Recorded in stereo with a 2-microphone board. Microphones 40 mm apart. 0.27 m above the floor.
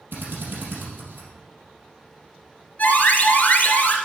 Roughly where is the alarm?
Left.